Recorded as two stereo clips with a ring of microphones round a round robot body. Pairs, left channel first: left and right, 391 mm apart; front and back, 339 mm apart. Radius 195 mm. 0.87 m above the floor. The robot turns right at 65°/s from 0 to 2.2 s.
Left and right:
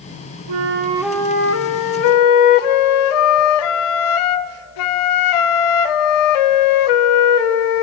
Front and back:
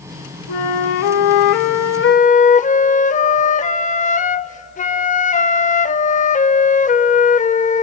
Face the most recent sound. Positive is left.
turn(degrees=70)